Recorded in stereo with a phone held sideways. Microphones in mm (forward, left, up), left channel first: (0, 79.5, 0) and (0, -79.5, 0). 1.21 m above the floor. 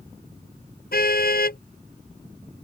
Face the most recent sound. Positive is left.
turn(degrees=75)  # may be behind; listen again after turning